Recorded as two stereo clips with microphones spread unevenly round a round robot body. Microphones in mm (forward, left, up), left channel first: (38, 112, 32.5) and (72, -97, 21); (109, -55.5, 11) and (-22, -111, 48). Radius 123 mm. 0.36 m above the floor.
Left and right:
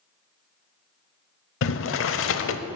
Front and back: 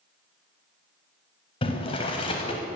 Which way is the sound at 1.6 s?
75° left.